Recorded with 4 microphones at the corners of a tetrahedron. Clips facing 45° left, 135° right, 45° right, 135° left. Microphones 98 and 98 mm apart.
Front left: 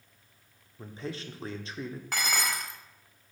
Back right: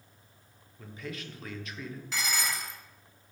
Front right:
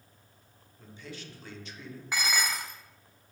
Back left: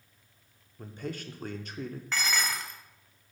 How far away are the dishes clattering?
About 0.9 m.